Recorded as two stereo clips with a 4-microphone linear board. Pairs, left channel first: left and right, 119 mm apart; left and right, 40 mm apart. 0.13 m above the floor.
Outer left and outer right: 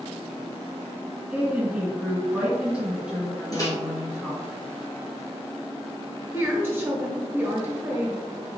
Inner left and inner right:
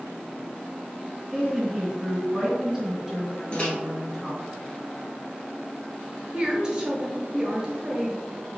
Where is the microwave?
30° left (ahead or behind), 1.4 m.